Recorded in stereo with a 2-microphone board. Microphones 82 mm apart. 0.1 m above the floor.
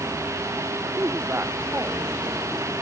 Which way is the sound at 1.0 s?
30° right (ahead or behind).